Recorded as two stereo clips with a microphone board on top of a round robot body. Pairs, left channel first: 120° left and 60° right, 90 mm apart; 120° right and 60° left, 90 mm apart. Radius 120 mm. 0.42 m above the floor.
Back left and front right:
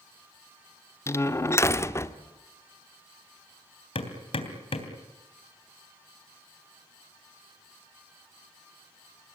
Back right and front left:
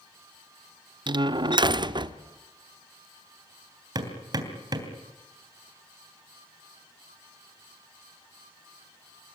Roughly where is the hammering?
Left.